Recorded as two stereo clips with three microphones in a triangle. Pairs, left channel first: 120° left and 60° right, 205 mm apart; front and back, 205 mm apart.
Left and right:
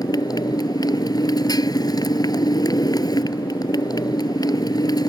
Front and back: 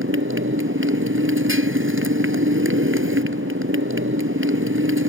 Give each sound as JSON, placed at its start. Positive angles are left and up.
{"t": 0.0, "sound": "a motorcycle", "azimuth_deg": -170}